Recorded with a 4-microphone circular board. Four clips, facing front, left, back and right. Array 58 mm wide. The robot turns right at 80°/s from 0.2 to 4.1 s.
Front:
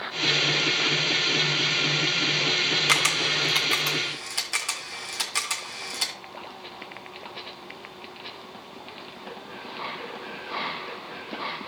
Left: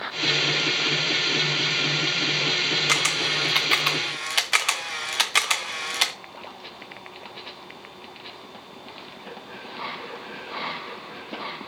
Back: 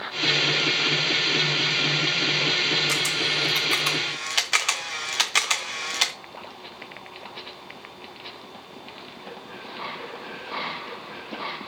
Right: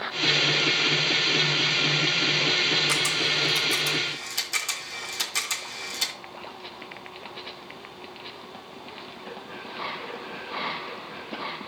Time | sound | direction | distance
2.9 | a camera shutter | 25° left | 0.7 m